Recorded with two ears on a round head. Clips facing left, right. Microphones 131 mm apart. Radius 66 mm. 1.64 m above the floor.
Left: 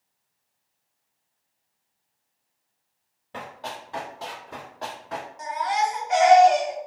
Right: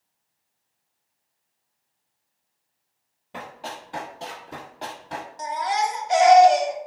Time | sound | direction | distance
3.3 | running footsteps | 10° right (ahead or behind) | 1.8 m
5.4 | a baby crying | 35° right (ahead or behind) | 0.6 m